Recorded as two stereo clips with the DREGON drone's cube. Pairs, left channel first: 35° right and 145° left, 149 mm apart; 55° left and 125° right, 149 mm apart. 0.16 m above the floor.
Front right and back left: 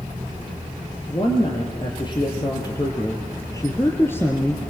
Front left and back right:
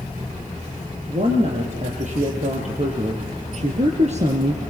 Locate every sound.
1.1 s a woman speaking: 90° right, 4.5 m; by 4.6 s 115° right, 1.7 m